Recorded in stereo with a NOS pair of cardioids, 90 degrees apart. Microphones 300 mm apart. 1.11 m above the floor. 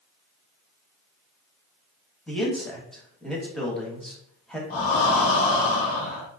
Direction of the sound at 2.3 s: Straight ahead.